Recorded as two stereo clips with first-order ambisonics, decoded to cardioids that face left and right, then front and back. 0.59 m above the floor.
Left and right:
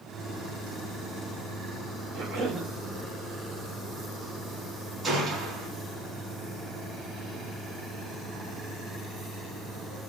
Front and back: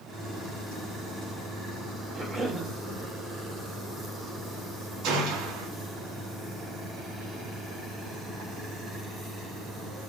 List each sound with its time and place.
2.1 s a cough: 115° right, 1.6 m
5.0 s a gunshot: 165° right, 3 m